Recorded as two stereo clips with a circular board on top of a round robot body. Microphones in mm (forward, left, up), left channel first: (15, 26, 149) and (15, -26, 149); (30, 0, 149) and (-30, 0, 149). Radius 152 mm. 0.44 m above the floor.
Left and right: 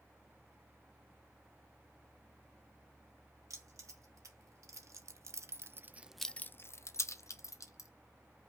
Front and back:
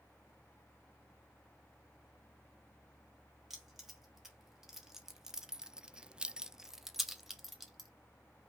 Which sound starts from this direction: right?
Keys jangling, at 3.5 s.